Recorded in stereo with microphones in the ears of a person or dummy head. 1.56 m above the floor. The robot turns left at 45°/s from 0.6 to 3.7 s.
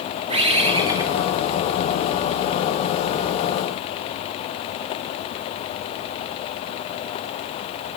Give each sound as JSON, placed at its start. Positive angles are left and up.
{"t": 0.3, "sound": "a bird", "azimuth_deg": -140, "distance_m": 1.5}